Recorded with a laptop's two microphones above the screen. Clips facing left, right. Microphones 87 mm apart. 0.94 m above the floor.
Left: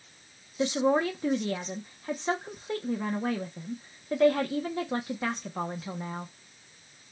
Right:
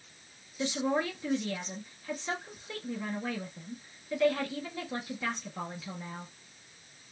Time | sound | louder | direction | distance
0.6 | a woman speaking | left 5 dB | 40° left (ahead or behind) | 0.5 m